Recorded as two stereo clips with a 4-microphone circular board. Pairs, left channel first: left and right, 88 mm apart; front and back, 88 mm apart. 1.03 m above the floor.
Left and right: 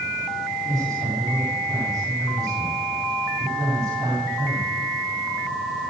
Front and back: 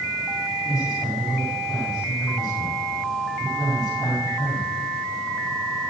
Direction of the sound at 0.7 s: 55° right.